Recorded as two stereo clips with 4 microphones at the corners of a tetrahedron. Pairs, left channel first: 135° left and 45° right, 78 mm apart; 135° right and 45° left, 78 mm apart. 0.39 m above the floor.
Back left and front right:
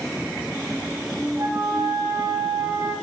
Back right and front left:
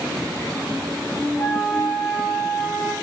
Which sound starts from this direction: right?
A flute, at 1.4 s.